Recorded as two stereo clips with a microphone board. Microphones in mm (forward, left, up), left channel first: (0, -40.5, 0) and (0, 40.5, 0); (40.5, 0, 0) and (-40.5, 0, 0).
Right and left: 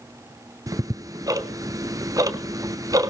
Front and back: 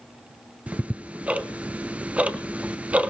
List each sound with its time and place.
0.7 s ticking: 115° left, 0.8 m